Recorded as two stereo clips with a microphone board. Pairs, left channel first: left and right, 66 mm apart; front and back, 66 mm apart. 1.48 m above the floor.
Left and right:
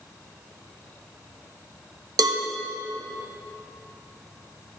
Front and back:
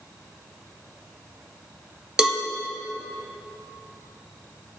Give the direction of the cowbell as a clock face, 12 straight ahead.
3 o'clock.